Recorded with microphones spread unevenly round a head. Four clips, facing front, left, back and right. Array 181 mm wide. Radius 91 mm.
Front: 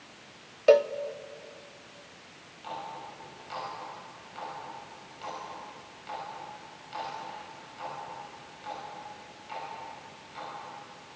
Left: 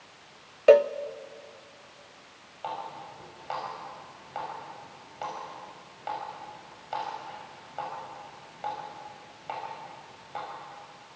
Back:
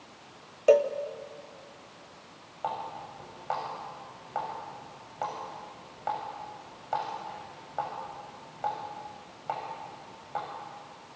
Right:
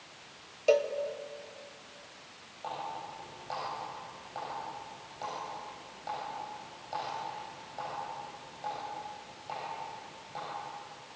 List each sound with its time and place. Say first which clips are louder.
0.7 s a cowbell: left 9 dB, front 1 dB; 75° left, 0.6 m
2.6 s a running tap: left 2 dB, back 4 dB; 160° left, 7 m